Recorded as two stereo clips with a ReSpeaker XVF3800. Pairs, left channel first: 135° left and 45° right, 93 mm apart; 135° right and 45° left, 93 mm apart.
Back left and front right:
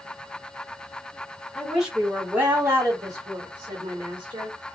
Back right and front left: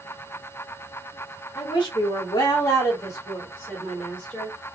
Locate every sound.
1.6 s a woman speaking: 135° right, 1.4 m; by 4.6 s 55° right, 1.8 m